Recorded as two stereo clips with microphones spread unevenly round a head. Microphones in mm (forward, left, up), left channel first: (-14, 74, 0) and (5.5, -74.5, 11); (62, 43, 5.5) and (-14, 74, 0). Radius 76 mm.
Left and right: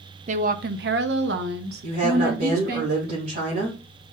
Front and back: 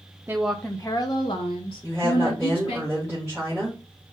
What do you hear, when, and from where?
0.3 s a woman speaking: 125° right, 0.8 m; by 2.8 s 50° right, 2 m
1.8 s a woman speaking: 115° right, 3.5 m